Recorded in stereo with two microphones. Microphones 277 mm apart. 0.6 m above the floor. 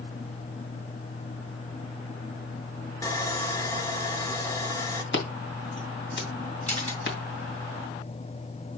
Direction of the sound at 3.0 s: 15° left (ahead or behind).